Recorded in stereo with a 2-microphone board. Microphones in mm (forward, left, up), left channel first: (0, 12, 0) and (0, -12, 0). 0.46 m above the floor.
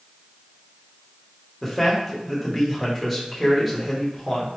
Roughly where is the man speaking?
Centre.